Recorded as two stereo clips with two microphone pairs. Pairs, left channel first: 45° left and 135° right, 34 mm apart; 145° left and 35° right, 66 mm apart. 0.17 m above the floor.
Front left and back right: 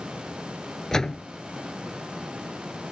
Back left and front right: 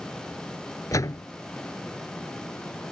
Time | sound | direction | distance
0.9 | a door slam | 120° left | ?